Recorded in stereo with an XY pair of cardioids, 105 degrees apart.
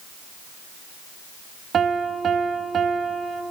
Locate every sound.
1.7 s a piano: 40° right, 1.0 m